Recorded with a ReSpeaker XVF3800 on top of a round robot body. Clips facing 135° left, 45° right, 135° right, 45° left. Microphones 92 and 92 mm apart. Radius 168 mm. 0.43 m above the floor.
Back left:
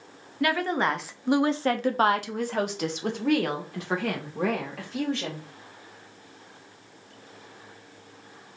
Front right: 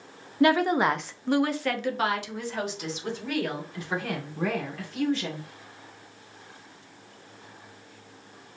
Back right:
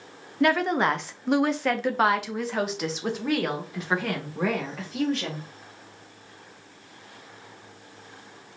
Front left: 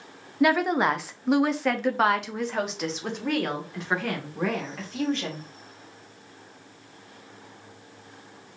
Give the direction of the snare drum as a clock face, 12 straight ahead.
No snare drum in this recording.